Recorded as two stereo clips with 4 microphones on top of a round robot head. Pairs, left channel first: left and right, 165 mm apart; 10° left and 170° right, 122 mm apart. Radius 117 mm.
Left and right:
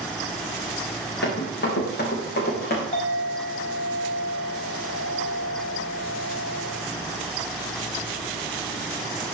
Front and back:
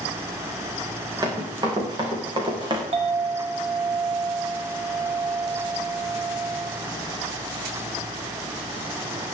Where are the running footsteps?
135° left, 5.5 m; by 2.8 s 140° left, 4.5 m.